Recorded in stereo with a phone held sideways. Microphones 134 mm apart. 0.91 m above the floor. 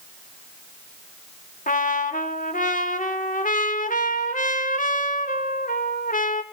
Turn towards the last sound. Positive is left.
turn(degrees=80)